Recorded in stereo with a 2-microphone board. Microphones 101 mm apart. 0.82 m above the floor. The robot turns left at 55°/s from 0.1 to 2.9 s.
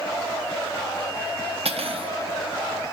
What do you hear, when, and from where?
1.6 s cutlery clinking: 80° right, 0.7 m; by 2.1 s 65° right (ahead or behind), 0.7 m